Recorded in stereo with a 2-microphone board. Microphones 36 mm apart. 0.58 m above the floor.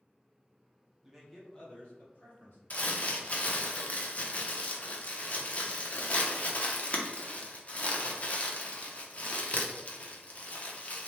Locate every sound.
1.0 s a man speaking: 20° right (ahead or behind), 0.9 m; by 2.6 s 55° left (ahead or behind), 1.7 m
2.7 s crumpling: 40° left (ahead or behind), 0.6 m